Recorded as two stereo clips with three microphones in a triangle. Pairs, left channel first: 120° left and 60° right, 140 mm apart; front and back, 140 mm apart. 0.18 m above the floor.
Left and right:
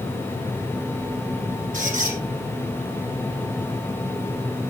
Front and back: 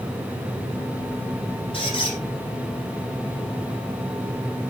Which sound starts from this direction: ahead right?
A squeak, at 1.7 s.